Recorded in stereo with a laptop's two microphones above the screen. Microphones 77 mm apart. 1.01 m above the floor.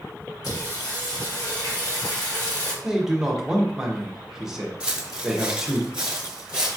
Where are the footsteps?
15° right (ahead or behind), 1.1 m.